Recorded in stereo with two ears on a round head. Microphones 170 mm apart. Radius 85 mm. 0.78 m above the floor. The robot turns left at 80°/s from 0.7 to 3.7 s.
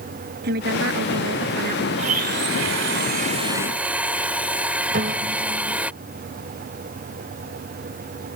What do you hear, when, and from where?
0.4 s a woman speaking: 55° right; by 1.9 s 145° right
2.0 s a blender: 35° right; by 5.9 s 175° right
4.9 s a piano: 50° right (ahead or behind)